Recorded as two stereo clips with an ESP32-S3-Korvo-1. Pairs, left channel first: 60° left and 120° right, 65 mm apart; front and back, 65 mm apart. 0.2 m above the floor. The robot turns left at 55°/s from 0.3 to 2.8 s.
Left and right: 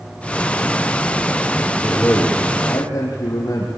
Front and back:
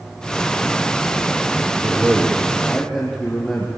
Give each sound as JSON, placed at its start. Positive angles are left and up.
{"t": 1.8, "sound": "a man speaking", "azimuth_deg": 120, "distance_m": 4.5}